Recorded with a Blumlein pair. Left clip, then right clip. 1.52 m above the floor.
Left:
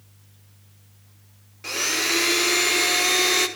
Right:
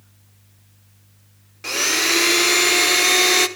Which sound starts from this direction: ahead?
A blender, at 1.6 s.